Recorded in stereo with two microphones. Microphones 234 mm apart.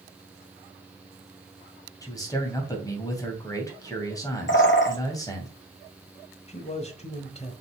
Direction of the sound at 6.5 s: 30° left (ahead or behind).